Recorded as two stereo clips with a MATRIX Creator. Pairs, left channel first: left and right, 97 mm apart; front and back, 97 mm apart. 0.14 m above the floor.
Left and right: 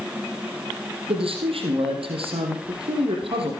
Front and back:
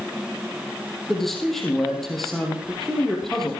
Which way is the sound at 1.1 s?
85° right.